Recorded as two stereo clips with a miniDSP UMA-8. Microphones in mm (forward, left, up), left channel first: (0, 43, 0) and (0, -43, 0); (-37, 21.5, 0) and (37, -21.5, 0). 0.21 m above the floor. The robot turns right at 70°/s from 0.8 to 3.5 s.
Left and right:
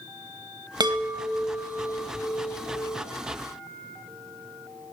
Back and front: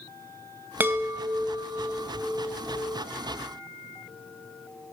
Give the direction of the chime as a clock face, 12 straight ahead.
3 o'clock.